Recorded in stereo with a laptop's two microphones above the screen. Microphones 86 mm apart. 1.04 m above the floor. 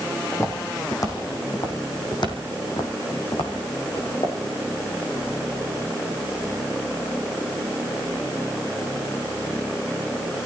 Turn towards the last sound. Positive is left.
turn(degrees=75)  # may be behind; listen again after turning